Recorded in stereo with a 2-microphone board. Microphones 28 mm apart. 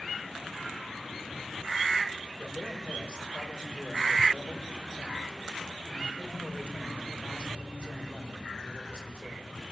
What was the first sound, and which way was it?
A man speaking, 60° left (ahead or behind).